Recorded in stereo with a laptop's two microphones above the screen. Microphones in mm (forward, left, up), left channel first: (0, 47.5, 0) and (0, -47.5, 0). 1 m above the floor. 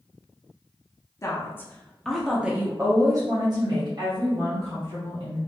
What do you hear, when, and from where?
1.2 s a woman speaking: 30° left (ahead or behind), 0.9 m; by 5.4 s 70° right (ahead or behind), 1.7 m